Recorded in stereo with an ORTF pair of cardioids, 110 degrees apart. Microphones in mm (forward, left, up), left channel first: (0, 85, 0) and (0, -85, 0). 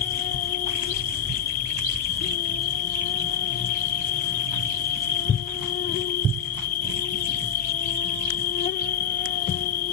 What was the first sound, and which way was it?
An insect, 55° left.